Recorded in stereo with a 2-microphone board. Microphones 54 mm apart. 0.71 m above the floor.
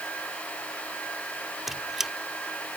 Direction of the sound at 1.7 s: 5° right (ahead or behind).